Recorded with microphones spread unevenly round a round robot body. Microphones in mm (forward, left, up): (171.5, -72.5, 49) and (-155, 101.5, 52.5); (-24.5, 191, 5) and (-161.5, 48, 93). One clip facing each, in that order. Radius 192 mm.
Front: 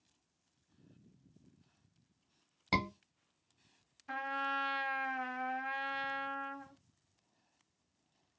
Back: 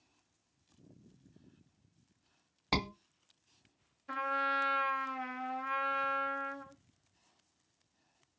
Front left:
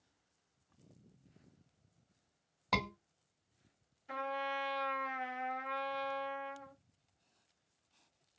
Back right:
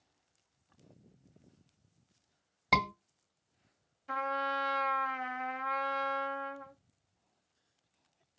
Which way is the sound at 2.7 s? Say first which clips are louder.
Back 1 dB, back right 3 dB; 125° right.